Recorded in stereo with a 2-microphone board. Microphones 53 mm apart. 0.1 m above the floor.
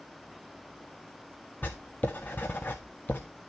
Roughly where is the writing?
Left.